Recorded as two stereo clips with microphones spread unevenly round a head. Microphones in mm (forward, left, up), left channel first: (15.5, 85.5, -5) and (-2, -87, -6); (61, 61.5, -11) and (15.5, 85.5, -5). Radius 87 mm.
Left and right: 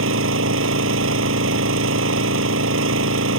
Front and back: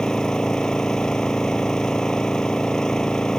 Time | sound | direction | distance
0.0 | an engine running | 115° right | ?